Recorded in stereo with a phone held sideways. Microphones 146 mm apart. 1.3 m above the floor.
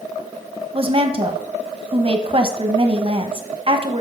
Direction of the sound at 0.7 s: 40° right (ahead or behind).